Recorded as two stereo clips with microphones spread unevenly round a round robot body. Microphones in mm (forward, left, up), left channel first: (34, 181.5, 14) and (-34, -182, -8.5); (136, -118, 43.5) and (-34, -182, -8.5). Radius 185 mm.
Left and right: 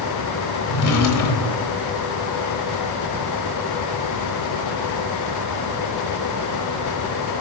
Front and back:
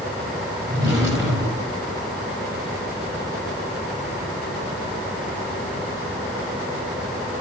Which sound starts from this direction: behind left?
A drawer, at 0.7 s.